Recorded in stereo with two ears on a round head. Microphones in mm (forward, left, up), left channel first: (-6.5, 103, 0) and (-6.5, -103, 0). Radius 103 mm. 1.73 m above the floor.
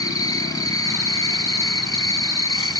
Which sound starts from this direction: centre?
An insect, at 0.0 s.